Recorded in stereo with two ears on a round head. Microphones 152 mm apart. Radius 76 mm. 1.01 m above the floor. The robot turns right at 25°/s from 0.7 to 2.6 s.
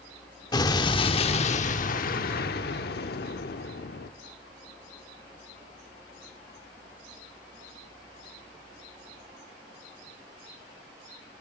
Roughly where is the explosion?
Ahead left.